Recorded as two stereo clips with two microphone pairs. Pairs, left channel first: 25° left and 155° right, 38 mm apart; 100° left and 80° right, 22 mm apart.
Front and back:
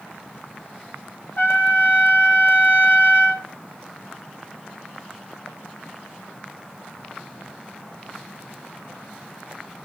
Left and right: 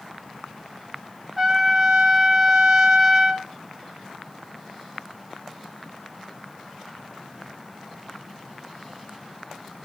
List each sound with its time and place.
1.4 s a trumpet: 10° right, 4 m